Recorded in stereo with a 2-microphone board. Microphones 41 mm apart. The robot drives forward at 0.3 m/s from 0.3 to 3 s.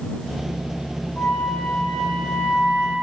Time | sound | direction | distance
1.2 | a flute | 45° left (ahead or behind) | 6 m